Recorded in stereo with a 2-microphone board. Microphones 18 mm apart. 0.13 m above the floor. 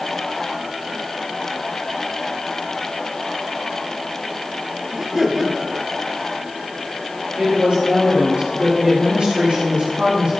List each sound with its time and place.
4.9 s laughter: 15° right (ahead or behind), 2.5 m
7.4 s a woman speaking: 80° right, 5.5 m